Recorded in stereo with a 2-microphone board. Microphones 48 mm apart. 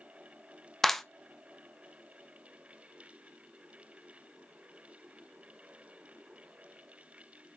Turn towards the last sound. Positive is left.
turn(degrees=5)  # may be behind; listen again after turning